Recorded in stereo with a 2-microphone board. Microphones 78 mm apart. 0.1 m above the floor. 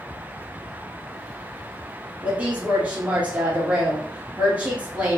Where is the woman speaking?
20° right (ahead or behind), 2.5 m.